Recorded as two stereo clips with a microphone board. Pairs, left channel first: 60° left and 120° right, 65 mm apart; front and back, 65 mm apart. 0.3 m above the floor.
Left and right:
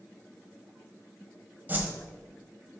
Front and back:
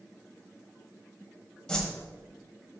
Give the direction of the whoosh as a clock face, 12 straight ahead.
3 o'clock.